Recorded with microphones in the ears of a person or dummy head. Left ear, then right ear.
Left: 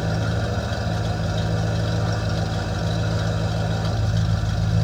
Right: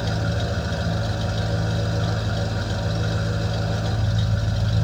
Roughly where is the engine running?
Centre.